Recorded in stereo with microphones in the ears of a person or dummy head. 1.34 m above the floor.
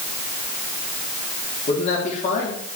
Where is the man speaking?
40° left (ahead or behind), 3 m; by 2.8 s 45° left (ahead or behind), 3.5 m.